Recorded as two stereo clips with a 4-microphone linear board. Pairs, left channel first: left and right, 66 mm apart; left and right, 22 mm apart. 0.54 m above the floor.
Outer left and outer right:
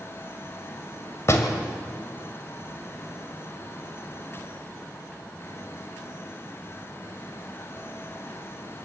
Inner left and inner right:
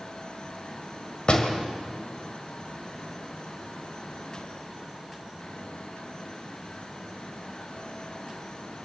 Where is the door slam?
45° left (ahead or behind), 2 m.